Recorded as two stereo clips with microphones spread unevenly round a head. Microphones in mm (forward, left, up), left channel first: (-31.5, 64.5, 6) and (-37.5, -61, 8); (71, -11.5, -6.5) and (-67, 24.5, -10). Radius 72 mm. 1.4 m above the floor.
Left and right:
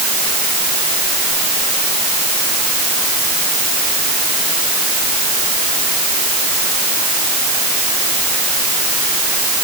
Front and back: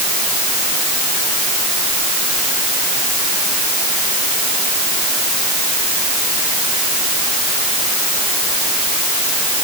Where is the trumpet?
No trumpet in this recording.